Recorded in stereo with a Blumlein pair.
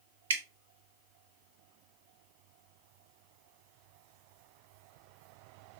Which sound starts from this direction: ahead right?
Dripping, at 0.3 s.